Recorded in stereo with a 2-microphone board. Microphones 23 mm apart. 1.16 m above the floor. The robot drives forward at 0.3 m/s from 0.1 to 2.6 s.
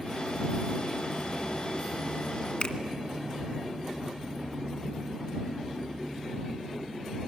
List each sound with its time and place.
2.6 s a finger snap: 60° left (ahead or behind), 1.7 m